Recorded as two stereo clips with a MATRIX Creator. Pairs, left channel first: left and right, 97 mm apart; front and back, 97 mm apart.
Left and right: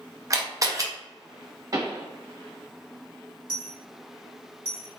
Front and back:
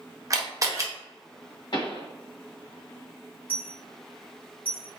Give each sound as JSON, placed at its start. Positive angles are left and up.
{"t": 0.3, "sound": "a camera shutter", "azimuth_deg": -135, "distance_m": 0.6}
{"t": 1.7, "sound": "a pop", "azimuth_deg": -40, "distance_m": 0.9}
{"t": 3.5, "sound": "a dropped coin", "azimuth_deg": -110, "distance_m": 1.4}